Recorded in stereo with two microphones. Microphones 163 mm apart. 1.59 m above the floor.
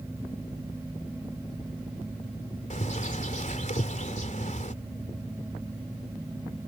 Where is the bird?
50° left (ahead or behind).